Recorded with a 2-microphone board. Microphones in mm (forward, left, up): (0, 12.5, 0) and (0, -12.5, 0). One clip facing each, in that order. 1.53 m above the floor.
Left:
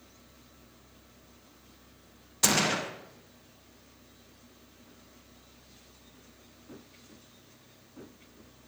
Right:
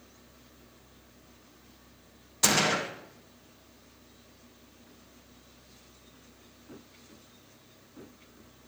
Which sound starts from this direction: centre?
A gunshot, at 2.4 s.